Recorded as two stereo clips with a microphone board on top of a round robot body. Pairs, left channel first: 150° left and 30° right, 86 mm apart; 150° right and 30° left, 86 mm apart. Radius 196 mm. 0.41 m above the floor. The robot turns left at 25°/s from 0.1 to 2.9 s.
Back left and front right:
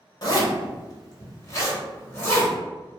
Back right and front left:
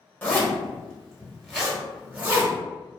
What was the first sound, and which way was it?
A zipper, 150° left.